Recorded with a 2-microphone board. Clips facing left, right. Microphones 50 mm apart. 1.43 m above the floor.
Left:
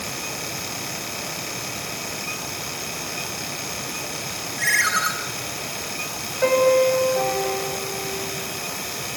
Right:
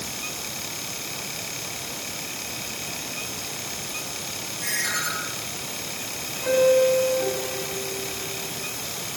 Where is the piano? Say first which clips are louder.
Left 1 dB; 80° left, 8.5 m.